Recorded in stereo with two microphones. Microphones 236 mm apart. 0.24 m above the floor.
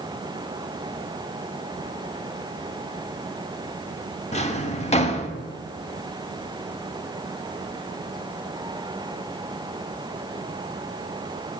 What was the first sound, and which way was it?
A drawer, 25° left (ahead or behind).